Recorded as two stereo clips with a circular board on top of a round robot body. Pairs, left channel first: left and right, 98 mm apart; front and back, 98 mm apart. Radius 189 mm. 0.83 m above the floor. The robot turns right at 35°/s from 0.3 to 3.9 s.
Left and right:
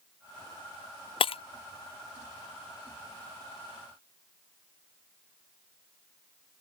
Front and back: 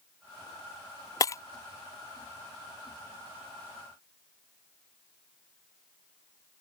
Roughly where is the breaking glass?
Ahead left.